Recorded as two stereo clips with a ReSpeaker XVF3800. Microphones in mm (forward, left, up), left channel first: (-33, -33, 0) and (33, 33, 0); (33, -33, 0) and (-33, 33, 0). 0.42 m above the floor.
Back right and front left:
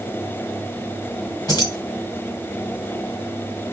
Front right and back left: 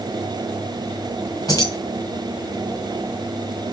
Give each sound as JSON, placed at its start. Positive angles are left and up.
{"t": 1.5, "sound": "keys jangling", "azimuth_deg": -90, "distance_m": 2.0}